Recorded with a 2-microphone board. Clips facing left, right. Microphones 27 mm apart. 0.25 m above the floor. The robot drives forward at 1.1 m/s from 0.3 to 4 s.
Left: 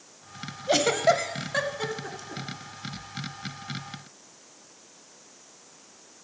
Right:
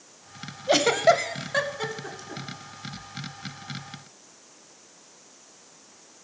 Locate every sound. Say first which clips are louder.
0.7 s a giggle: right 2 dB; 15° right (ahead or behind), 0.6 m; by 2.4 s 5° right (ahead or behind), 1.6 m